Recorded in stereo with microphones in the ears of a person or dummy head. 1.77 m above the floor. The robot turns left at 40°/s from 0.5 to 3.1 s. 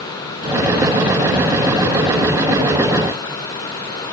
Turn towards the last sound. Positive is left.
No sound to turn to.